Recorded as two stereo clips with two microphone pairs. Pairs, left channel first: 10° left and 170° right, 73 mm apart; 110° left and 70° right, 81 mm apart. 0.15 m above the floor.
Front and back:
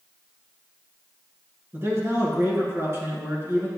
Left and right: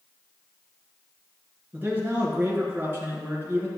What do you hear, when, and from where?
1.7 s a man speaking: 130° right, 1.8 m